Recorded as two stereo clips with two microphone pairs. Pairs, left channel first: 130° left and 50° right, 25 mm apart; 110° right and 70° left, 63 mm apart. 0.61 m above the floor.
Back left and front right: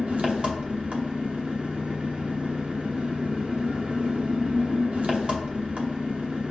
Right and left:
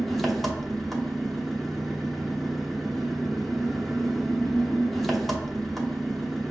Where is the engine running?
15° right, 0.8 m.